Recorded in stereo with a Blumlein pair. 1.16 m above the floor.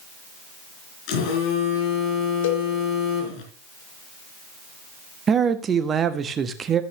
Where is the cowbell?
55° left, 2 m.